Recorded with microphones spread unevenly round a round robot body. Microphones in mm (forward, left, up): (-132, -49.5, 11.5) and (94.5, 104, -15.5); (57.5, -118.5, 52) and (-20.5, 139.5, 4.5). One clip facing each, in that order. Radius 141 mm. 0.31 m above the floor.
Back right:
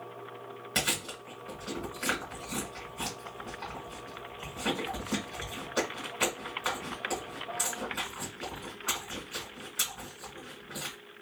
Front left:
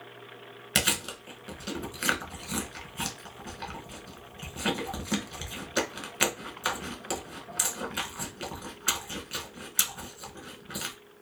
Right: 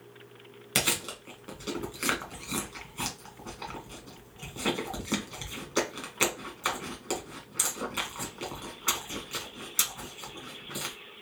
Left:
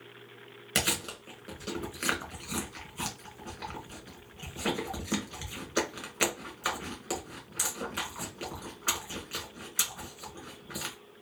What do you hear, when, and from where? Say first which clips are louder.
0.8 s chewing: front left 3 dB, right 1 dB; 20° left, 1.3 m